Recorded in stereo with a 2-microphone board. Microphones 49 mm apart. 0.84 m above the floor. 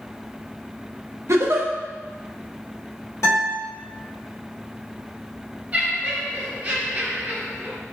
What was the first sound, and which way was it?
A giggle, 65° right (ahead or behind).